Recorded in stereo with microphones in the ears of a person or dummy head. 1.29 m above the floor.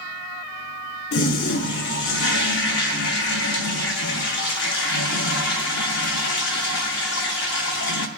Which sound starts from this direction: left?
A toilet flushing, at 1.1 s.